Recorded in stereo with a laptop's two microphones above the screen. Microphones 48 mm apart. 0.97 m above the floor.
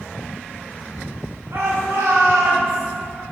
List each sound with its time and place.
1.5 s a shout: 70° right (ahead or behind), 1.5 m; by 2.9 s 60° right (ahead or behind), 1.1 m